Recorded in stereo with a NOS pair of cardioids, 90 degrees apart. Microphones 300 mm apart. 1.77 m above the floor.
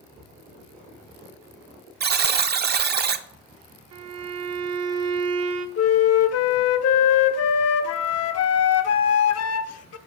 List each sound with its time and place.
2.0 s a buzzer: 35° right, 0.6 m
3.9 s a violin: 60° right, 0.9 m
5.8 s a flute: 55° left, 0.6 m